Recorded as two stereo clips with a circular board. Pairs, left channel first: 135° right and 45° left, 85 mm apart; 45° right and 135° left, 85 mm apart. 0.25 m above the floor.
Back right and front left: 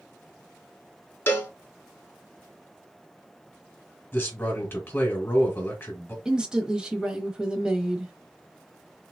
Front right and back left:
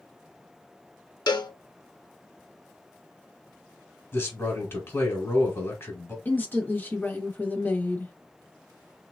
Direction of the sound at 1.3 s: 75° right.